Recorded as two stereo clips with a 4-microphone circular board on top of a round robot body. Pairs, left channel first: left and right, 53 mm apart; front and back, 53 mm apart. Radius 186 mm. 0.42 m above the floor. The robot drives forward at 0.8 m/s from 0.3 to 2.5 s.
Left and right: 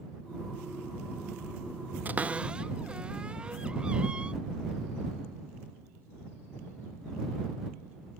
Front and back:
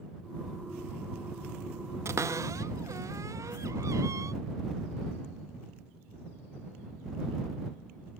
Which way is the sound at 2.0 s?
145° right.